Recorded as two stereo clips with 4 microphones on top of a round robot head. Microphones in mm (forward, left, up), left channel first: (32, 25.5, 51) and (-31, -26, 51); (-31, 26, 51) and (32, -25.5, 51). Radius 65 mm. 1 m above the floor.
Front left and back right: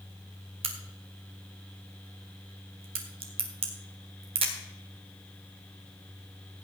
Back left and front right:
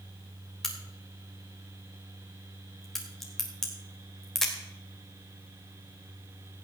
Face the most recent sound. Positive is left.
turn(degrees=-135)